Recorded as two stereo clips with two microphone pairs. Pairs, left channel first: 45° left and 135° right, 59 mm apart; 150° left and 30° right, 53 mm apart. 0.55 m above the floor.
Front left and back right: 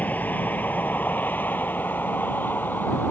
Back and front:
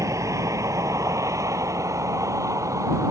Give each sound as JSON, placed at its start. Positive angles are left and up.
{"t": 0.0, "sound": "a vehicle", "azimuth_deg": -15}